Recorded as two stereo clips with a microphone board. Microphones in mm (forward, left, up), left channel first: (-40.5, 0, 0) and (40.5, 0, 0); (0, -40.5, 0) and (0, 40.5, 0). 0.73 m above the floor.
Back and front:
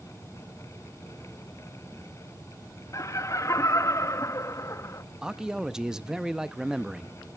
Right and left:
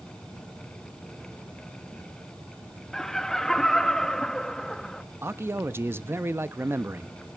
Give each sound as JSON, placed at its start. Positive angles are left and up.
{"t": 2.9, "sound": "laughter", "azimuth_deg": -170, "distance_m": 0.8}
{"t": 5.2, "sound": "a man speaking", "azimuth_deg": 75, "distance_m": 0.5}